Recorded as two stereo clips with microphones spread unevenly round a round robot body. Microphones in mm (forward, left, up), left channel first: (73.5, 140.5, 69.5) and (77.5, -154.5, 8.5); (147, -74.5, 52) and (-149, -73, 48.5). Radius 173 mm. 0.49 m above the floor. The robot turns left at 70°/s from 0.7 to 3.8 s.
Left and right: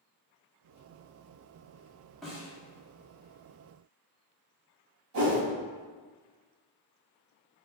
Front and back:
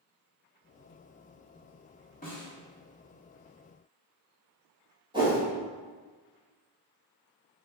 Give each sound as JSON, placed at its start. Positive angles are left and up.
{"t": 2.2, "sound": "a snare drum", "azimuth_deg": -20, "distance_m": 1.4}
{"t": 5.1, "sound": "a whoosh", "azimuth_deg": -105, "distance_m": 1.6}